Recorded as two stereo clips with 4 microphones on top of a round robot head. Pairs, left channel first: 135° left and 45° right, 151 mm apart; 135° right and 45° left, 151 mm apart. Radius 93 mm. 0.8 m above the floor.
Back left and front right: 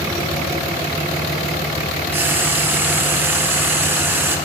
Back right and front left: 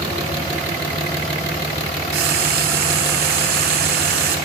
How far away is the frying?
About 1.6 m.